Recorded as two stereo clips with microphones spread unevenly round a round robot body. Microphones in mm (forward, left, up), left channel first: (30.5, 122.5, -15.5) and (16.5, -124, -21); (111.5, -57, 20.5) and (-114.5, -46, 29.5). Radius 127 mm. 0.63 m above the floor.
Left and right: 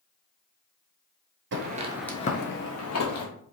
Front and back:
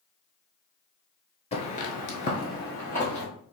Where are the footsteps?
65° right, 0.9 m; by 3.3 s 85° left, 1.6 m.